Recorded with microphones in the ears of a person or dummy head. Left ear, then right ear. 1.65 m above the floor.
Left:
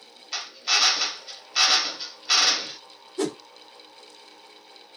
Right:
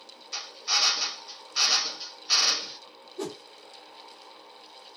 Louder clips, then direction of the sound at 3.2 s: Left 7 dB; 45° left (ahead or behind).